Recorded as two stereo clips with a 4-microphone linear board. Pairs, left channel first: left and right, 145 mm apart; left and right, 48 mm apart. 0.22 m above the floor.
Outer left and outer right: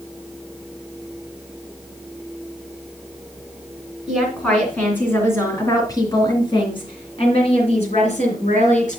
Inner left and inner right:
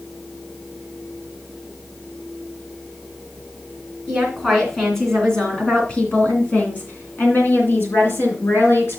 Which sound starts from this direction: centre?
A woman speaking, at 4.1 s.